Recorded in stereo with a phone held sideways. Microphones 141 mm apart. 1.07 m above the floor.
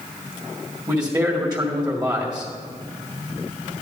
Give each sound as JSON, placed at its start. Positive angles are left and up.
{"t": 0.9, "sound": "a man speaking", "side_deg": -30, "distance_m": 2.0}